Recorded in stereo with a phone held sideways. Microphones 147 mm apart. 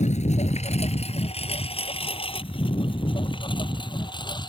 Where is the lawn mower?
55° left (ahead or behind); by 4.5 s 30° left (ahead or behind).